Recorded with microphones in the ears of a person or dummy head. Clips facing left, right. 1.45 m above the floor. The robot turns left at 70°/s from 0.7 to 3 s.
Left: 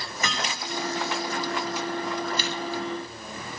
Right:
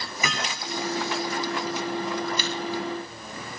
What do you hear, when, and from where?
0.2 s hammering: 5° right (ahead or behind), 7.5 m
2.4 s a camera shutter: 75° right (ahead or behind), 7.5 m; by 2.5 s 90° right, 7.5 m